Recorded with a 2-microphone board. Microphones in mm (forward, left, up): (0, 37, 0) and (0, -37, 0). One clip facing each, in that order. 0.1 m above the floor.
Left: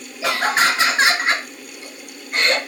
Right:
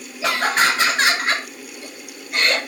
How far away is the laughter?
About 1.6 m.